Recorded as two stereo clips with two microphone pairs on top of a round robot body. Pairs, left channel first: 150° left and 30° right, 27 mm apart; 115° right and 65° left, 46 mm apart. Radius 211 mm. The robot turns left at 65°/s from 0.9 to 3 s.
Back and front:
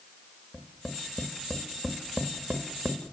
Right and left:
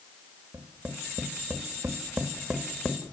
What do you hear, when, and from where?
0.5 s tapping: 85° left, 1.7 m; by 3.0 s 50° right, 1.7 m